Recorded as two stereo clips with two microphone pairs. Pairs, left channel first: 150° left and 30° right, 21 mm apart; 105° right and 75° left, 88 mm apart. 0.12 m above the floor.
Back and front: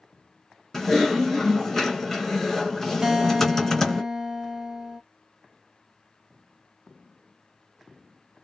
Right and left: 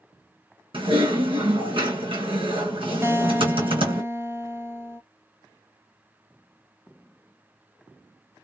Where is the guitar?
20° left, 0.5 m.